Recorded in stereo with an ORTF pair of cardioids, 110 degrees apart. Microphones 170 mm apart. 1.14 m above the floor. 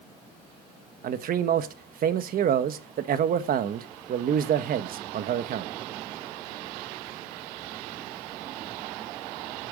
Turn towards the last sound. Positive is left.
turn(degrees=-55)